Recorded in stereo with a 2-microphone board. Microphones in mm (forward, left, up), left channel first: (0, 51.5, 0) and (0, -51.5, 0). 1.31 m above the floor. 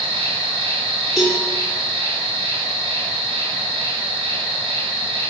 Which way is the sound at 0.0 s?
85° right.